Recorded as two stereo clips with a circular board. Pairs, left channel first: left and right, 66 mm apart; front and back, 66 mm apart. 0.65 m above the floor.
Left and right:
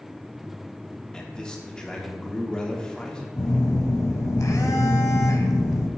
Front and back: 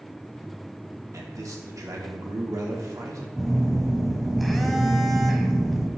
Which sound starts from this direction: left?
A phone buzzing, at 3.4 s.